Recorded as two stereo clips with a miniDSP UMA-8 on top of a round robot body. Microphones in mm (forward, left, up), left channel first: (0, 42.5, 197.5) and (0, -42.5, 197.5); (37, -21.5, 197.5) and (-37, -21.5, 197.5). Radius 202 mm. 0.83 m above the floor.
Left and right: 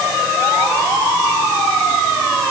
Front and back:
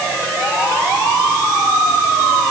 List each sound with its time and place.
Only background noise.